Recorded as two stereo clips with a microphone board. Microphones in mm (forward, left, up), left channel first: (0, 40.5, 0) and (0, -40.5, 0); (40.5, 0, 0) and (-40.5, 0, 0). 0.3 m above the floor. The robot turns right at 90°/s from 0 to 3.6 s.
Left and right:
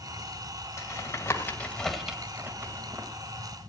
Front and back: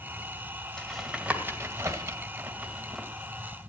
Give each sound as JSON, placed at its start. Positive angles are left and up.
{"t": 0.8, "sound": "tapping", "azimuth_deg": 75, "distance_m": 1.8}